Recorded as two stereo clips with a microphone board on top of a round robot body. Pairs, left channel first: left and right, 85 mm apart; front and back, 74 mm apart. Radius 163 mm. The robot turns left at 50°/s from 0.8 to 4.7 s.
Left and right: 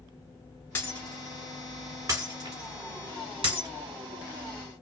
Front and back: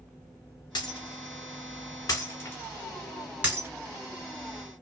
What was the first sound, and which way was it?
Breaking glass, 25° left.